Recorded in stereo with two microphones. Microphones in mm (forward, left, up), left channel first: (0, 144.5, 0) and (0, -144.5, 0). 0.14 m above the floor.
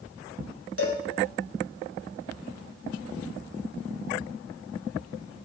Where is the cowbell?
50° left (ahead or behind), 1.1 m.